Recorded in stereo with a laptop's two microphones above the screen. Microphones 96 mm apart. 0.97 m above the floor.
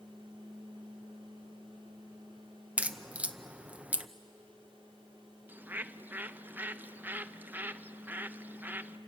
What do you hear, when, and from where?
0.0 s a fan: 60° right (ahead or behind), 3.5 m
2.8 s a crack: 15° right (ahead or behind), 0.6 m
5.5 s a bird: 20° right (ahead or behind), 0.6 m